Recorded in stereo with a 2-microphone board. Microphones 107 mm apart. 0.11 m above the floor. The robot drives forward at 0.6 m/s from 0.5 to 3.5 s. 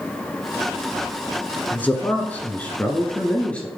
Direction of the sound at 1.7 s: 15° left (ahead or behind).